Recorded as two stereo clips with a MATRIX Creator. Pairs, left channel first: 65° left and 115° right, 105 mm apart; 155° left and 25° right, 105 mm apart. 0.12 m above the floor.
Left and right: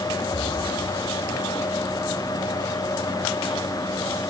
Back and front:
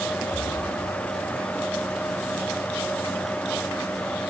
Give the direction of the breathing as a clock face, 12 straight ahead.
8 o'clock.